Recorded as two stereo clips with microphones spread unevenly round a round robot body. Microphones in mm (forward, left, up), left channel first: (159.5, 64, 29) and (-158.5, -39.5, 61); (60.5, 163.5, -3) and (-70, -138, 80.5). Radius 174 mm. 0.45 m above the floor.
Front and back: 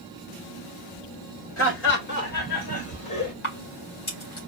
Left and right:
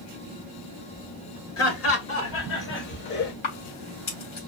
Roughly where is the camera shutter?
Left.